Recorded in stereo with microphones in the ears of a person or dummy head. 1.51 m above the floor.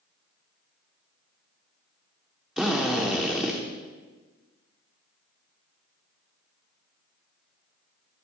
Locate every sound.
2.6 s a drill: 5° right (ahead or behind), 1.2 m